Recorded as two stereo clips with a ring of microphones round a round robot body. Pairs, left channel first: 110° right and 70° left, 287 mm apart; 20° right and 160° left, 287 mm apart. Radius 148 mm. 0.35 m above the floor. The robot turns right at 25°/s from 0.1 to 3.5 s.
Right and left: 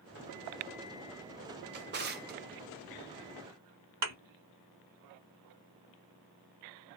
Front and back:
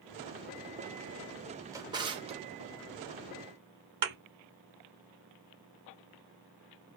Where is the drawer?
85° left, 0.7 m; by 2.4 s 100° left, 0.7 m.